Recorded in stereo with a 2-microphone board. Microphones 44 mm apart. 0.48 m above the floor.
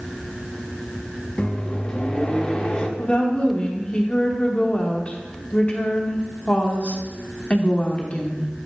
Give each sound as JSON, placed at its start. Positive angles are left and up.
{"t": 1.4, "sound": "a microwave", "side_deg": 20, "distance_m": 0.6}
{"t": 3.0, "sound": "a woman speaking", "side_deg": 30, "distance_m": 0.9}